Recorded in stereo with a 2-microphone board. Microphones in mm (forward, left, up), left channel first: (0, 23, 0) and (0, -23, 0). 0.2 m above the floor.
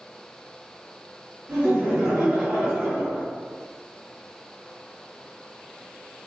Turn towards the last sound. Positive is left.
turn(degrees=-10)  # may be behind; listen again after turning